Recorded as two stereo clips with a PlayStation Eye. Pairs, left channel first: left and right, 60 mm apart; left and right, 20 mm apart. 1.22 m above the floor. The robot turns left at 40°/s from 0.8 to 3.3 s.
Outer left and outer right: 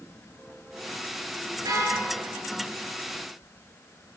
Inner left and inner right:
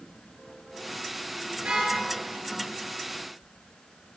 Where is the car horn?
75° right (ahead or behind), 9 m; by 2.0 s 65° right (ahead or behind), 9 m.